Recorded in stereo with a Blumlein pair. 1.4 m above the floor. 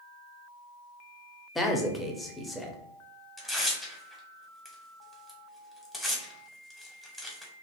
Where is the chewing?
No chewing in this recording.